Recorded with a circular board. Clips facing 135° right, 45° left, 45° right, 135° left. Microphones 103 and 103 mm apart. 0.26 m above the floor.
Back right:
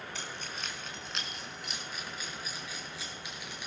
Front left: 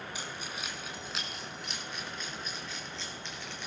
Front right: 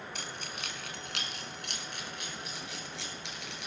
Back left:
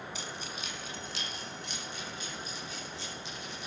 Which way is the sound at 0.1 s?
30° right.